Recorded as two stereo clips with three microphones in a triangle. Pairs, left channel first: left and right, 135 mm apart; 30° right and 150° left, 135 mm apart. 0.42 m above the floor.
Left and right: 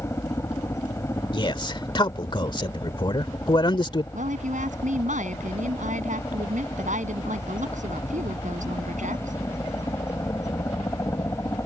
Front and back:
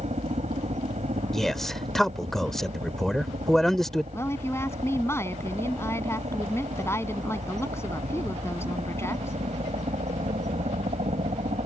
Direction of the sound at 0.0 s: 155° left.